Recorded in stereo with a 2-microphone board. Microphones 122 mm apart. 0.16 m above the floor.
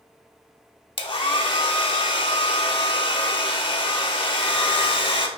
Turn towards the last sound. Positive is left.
turn(degrees=45)  # may be behind; listen again after turning